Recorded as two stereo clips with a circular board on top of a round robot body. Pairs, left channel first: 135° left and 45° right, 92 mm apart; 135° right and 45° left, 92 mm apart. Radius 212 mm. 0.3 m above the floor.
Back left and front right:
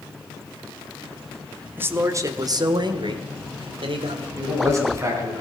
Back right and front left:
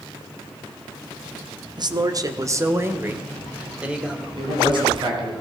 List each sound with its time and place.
1.8 s a man speaking: 20° left, 1.4 m; by 4.3 s 40° right, 2.5 m
4.4 s a man speaking: 10° left, 4.5 m